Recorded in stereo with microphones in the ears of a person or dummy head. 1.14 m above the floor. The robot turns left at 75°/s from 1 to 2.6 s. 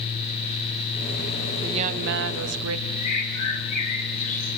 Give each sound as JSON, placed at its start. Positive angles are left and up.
{"t": 1.6, "sound": "a woman speaking", "azimuth_deg": -25, "distance_m": 1.3}
{"t": 3.0, "sound": "a bird", "side_deg": 40, "distance_m": 2.5}